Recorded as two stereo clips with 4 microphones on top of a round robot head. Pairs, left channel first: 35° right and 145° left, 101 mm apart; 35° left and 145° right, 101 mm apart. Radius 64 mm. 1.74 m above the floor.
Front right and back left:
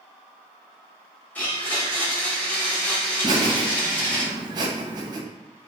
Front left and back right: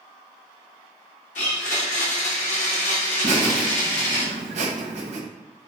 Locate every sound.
1.4 s a blender: 40° left, 0.7 m
3.2 s laughter: 165° right, 0.7 m